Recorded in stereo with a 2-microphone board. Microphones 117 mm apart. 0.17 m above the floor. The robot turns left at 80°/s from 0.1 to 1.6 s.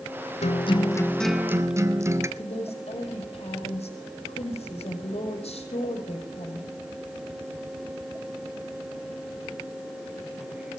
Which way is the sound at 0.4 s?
70° left.